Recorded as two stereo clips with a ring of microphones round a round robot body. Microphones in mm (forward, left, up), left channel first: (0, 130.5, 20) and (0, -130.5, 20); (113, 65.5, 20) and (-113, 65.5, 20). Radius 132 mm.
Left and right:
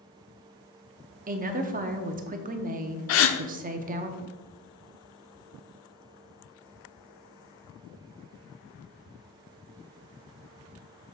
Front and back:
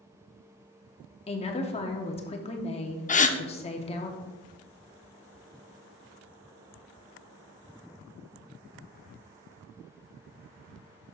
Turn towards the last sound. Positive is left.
turn(degrees=55)